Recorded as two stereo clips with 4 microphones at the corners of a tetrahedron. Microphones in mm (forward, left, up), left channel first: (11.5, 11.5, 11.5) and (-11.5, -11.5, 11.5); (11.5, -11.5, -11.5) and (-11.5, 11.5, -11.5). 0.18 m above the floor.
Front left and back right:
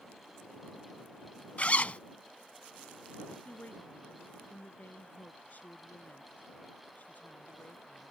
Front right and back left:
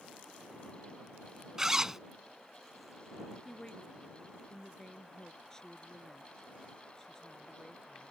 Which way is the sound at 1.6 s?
65° left.